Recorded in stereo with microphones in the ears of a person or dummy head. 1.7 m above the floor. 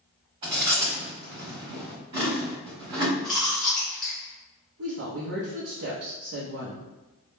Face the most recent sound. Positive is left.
turn(degrees=-65)  # may be behind; listen again after turning